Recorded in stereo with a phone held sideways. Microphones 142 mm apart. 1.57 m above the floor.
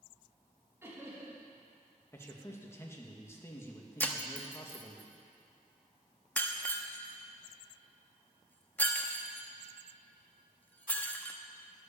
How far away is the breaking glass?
About 1.0 m.